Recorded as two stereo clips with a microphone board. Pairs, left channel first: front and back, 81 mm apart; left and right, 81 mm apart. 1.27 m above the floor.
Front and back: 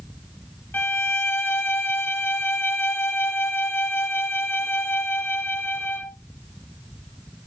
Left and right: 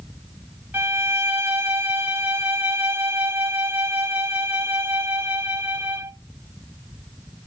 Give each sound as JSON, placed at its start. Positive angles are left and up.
{"t": 0.7, "sound": "a violin", "azimuth_deg": -35, "distance_m": 1.0}